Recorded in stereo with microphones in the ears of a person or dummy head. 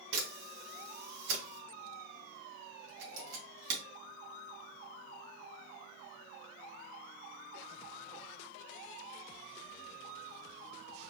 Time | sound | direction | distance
0.1 | a camera shutter | 60° right (ahead or behind) | 1.7 m